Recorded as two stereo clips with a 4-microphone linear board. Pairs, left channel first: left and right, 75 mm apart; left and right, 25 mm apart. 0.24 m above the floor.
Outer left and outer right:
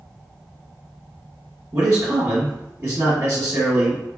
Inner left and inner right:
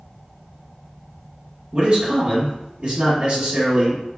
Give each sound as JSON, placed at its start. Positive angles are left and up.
{"t": 1.7, "sound": "a man speaking", "side_deg": -30, "distance_m": 1.9}